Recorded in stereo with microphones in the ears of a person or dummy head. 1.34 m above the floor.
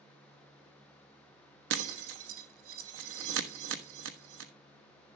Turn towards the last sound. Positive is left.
turn(degrees=-65)  # may be behind; listen again after turning